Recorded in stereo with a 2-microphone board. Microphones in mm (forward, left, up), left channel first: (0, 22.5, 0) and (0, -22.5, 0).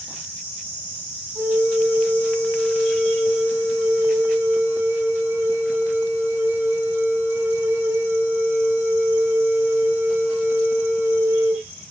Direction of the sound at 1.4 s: 90° right.